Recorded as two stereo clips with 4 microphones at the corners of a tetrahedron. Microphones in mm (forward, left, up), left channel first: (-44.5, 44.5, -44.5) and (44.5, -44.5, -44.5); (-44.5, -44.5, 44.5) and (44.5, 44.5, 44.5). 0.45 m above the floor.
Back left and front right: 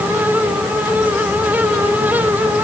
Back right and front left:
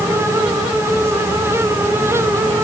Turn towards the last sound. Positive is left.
No sound to turn to.